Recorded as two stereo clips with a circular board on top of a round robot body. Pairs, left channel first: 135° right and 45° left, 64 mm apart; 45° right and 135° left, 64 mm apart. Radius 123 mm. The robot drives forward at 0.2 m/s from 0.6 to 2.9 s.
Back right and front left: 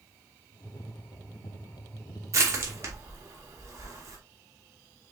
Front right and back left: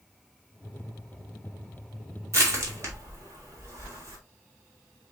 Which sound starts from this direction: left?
Crushing, at 2.3 s.